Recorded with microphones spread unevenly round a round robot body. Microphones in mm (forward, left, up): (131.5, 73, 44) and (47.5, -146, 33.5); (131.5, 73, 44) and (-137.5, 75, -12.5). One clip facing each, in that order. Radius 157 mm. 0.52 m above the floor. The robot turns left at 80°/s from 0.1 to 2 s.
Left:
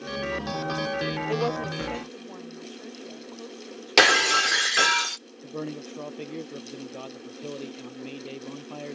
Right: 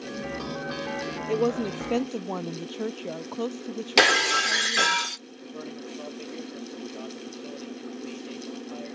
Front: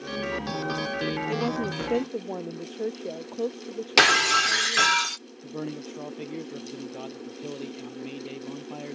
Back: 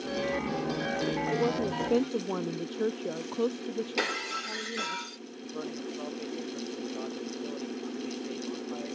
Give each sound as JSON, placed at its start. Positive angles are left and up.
{"t": 1.3, "sound": "a woman speaking", "azimuth_deg": -45}
{"t": 4.0, "sound": "breaking glass", "azimuth_deg": -20}
{"t": 5.4, "sound": "a man speaking", "azimuth_deg": 30}